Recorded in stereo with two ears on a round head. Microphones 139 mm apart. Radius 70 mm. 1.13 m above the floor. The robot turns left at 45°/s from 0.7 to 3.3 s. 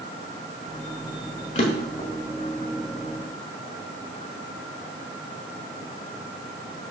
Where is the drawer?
45° left (ahead or behind), 1.5 m; by 2.1 s 25° left (ahead or behind), 1.5 m.